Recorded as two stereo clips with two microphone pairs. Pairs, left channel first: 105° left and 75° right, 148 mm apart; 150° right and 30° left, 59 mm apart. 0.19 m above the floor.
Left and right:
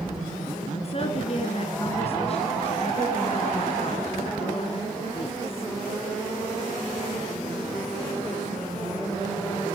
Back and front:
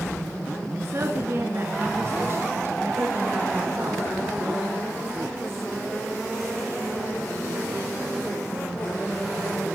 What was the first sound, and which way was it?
A woman speaking, 65° left.